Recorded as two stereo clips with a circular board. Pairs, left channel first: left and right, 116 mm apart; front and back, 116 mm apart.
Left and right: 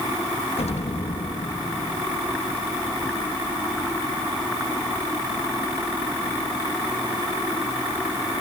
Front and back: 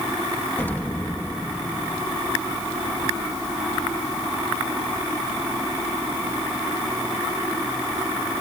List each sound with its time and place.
0.6 s an explosion: 70° left, 1.3 m